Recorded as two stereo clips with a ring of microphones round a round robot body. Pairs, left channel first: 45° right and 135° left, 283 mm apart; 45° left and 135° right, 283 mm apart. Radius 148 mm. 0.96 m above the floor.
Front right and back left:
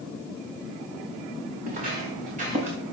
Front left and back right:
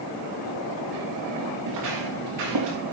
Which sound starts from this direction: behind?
Footsteps, at 1.7 s.